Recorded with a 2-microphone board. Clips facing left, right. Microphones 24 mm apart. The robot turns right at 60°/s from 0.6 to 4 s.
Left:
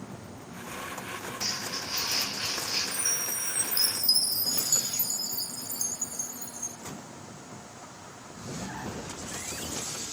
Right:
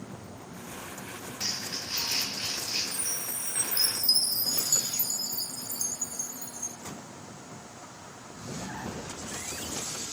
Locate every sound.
1.4 s crumpling: 60° right (ahead or behind), 4 m; by 2.8 s 25° left (ahead or behind), 4 m
2.9 s a chime: 75° left, 0.6 m; by 6.8 s 140° left, 0.6 m